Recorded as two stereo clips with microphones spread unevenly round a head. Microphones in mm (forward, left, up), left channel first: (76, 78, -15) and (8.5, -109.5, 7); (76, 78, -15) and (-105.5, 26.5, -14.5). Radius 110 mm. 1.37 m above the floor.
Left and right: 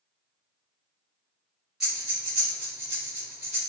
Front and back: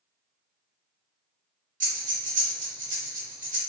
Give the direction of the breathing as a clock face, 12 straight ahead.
6 o'clock.